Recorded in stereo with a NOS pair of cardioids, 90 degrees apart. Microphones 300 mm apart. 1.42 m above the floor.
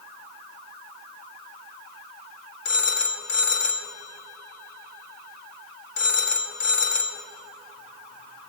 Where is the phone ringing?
65° left, 1.9 m.